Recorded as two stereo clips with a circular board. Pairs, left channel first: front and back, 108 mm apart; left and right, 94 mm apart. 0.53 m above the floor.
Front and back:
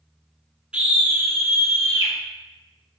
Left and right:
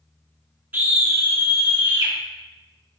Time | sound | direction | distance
0.7 | a scream | 120° right | 0.7 m